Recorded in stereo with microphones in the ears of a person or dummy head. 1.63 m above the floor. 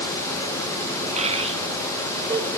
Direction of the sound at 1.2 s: 35° right (ahead or behind).